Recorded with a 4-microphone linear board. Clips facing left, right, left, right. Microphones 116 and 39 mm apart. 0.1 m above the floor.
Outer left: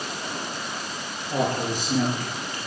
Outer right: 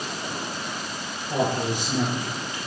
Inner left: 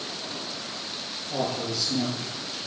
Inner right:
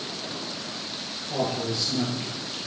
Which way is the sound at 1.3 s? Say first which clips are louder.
Outer right 1 dB, inner right 1 dB; 20° right (ahead or behind).